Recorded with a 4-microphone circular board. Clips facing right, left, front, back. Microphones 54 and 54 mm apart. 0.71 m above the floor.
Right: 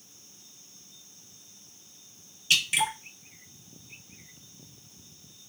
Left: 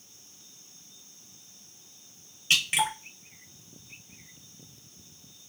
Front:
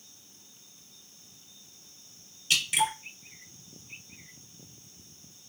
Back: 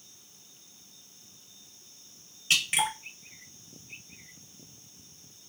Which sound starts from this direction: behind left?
Dripping, at 2.5 s.